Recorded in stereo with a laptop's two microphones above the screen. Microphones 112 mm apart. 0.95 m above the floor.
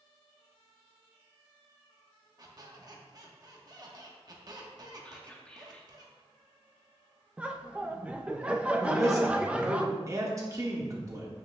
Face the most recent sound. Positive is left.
turn(degrees=-30)  # may be behind; listen again after turning